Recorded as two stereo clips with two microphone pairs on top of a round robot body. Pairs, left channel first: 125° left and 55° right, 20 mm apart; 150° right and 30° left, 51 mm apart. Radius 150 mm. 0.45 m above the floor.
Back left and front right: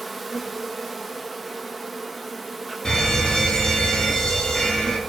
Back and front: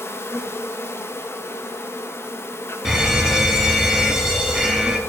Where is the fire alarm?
95° left, 1.8 m.